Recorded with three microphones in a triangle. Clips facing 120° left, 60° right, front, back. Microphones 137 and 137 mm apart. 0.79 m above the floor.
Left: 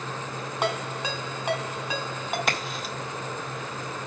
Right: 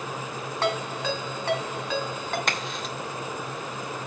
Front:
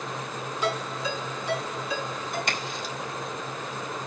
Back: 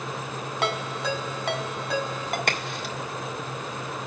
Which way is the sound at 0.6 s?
160° right.